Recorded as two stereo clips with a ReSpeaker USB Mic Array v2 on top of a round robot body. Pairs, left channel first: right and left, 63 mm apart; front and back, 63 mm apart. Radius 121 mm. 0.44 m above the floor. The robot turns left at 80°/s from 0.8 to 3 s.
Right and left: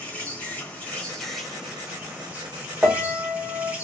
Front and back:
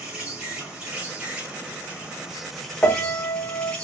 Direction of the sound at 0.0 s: 125° right.